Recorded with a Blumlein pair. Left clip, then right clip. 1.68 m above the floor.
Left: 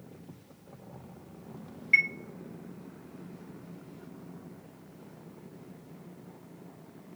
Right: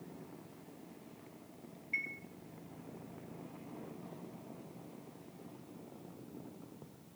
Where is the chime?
55° left, 0.5 m.